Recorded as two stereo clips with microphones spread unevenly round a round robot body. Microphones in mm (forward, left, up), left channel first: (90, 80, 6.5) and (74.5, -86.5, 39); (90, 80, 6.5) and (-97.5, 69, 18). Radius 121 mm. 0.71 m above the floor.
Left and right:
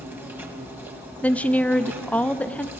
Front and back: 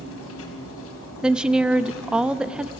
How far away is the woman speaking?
About 0.7 m.